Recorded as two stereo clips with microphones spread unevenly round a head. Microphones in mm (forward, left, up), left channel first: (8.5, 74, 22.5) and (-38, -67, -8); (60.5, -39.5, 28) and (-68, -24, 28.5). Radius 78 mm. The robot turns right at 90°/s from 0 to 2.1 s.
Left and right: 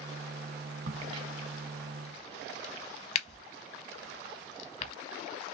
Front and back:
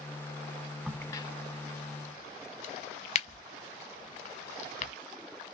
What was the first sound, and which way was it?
A crack, 90° right.